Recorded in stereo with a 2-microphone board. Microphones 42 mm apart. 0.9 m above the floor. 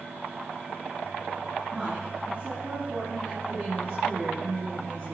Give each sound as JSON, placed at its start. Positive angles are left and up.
{"t": 1.7, "sound": "a woman speaking", "side_deg": -30, "distance_m": 7.0}